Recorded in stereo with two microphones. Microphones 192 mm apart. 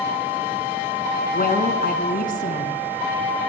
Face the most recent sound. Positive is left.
turn(degrees=50)  # may be behind; listen again after turning